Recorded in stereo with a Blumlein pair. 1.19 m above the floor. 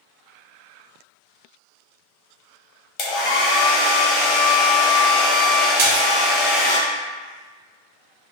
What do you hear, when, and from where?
3.0 s a hair dryer: 35° left, 0.8 m
5.8 s a splash: 60° right, 0.7 m